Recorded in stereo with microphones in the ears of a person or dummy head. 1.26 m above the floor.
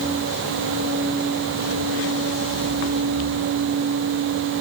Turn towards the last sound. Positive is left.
No sound to turn to.